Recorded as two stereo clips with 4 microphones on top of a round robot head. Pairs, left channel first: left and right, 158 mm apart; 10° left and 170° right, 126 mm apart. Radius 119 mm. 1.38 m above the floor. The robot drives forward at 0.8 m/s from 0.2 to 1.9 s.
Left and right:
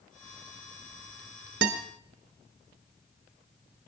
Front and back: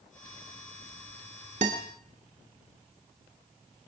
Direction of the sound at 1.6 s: 115° right.